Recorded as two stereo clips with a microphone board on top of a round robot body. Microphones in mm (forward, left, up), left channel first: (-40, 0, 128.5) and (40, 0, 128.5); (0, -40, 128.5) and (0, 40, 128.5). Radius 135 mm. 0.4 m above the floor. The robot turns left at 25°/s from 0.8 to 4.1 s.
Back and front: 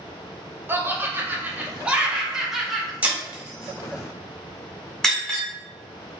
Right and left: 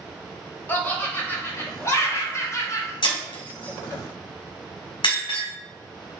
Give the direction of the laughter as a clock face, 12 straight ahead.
1 o'clock.